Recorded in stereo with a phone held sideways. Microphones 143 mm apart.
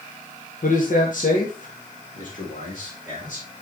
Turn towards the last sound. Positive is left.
turn(degrees=65)  # may be behind; listen again after turning